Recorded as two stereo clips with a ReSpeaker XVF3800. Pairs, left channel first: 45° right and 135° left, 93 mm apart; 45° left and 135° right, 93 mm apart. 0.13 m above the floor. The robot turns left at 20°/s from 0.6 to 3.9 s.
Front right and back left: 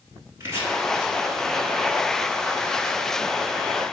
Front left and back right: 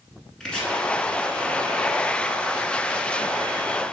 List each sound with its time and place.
0.4 s chopping: 120° left, 0.9 m